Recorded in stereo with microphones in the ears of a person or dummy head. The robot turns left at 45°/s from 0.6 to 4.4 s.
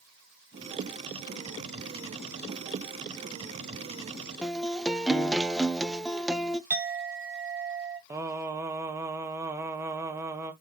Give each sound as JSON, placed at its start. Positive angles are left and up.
{"t": 4.4, "sound": "a guitar", "side_deg": 0, "distance_m": 0.7}
{"t": 6.7, "sound": "a clink", "side_deg": -10, "distance_m": 0.6}
{"t": 8.1, "sound": "singing", "side_deg": -15, "distance_m": 1.1}